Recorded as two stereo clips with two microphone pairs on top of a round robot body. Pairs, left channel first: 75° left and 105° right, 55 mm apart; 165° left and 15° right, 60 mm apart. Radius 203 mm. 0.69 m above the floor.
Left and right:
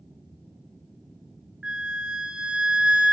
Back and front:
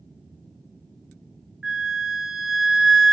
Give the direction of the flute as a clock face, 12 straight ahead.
2 o'clock.